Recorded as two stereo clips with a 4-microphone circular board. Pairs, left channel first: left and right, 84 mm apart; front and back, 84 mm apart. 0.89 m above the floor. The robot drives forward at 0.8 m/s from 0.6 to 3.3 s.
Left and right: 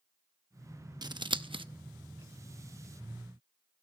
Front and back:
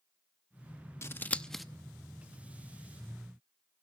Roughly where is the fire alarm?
I don't hear a fire alarm.